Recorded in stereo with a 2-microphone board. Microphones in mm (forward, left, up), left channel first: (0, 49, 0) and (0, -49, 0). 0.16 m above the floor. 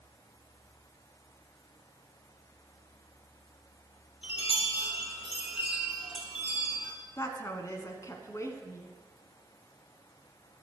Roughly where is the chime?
Left.